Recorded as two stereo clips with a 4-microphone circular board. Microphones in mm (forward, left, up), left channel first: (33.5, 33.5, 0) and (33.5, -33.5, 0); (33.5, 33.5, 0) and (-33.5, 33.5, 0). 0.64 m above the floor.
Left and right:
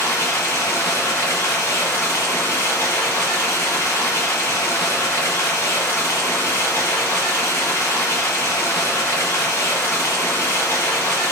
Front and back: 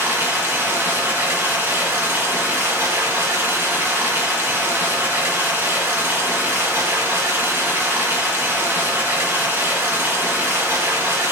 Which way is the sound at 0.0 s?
125° left.